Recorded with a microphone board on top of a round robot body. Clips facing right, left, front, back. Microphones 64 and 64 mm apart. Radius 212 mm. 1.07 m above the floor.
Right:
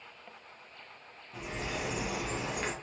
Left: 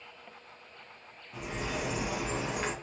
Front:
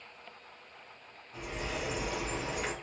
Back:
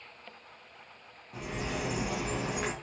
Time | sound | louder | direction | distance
1.3 | a bird | left 2 dB, back 2 dB | 175° left | 0.6 m